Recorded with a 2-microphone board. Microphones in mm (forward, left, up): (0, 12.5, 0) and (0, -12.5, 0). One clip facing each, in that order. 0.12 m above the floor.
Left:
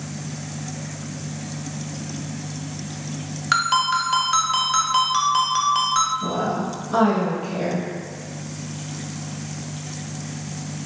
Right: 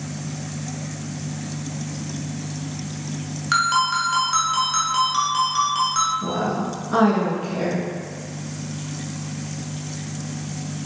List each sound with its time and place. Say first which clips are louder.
3.5 s a ringtone: even; 15° left (ahead or behind), 0.9 m
6.2 s a woman speaking: even; 20° right (ahead or behind), 1.1 m